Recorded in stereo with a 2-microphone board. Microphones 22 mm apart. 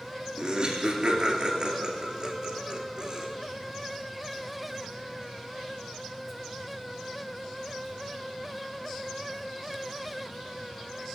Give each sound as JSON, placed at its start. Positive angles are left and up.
{"t": 0.4, "sound": "laughter", "side_deg": -40, "distance_m": 2.0}